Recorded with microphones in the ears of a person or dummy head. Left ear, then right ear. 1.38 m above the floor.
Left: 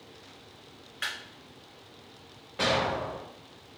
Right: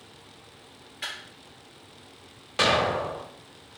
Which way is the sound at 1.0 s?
35° left (ahead or behind).